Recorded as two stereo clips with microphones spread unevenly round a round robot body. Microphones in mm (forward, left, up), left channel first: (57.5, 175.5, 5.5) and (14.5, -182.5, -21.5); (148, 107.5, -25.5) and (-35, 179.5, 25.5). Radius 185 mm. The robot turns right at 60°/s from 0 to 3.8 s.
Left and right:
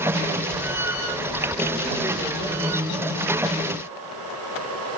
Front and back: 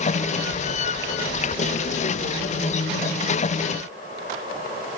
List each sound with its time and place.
Only background noise.